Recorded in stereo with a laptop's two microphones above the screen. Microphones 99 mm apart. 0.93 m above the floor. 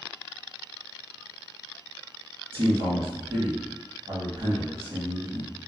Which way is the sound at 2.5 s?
65° right (ahead or behind).